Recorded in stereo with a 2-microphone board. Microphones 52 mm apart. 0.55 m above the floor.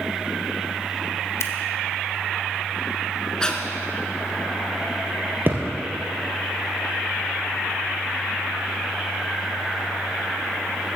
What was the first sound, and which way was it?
Scissors, 65° left (ahead or behind).